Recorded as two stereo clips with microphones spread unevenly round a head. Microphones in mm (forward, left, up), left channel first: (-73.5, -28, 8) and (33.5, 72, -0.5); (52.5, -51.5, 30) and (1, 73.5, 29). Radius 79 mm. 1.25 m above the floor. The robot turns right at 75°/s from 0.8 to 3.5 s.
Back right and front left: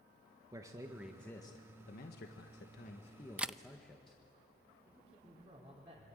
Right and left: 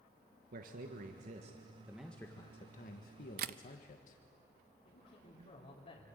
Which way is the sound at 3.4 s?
125° left.